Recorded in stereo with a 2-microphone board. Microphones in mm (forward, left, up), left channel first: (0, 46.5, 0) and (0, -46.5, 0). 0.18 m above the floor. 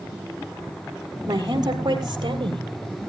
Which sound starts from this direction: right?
A woman speaking, at 1.3 s.